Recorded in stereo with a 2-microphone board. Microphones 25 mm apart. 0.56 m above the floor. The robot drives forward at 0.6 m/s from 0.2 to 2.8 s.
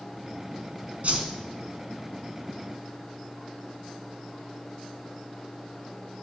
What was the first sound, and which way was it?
A whoosh, 60° right (ahead or behind).